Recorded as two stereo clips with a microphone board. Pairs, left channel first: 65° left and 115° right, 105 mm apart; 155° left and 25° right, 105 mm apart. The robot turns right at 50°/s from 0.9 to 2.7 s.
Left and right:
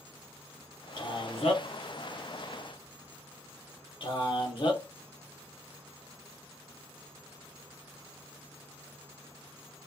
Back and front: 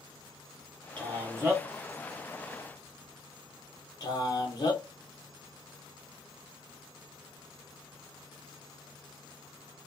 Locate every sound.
1.0 s a man speaking: 20° left, 1.1 m; by 4.8 s 105° left, 1.1 m